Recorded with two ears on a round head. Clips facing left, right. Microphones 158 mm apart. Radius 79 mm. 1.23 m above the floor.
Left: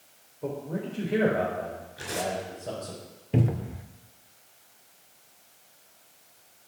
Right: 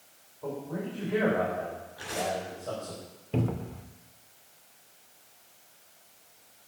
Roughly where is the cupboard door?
Centre.